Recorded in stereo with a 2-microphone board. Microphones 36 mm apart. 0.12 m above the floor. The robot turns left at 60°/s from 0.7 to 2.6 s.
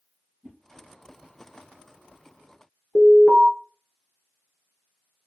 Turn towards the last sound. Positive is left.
turn(degrees=40)  # may be behind; listen again after turning